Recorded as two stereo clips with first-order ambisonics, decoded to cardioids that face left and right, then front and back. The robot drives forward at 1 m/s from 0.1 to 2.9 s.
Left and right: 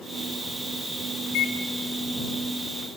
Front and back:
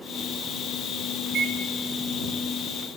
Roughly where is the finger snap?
I don't hear a finger snap.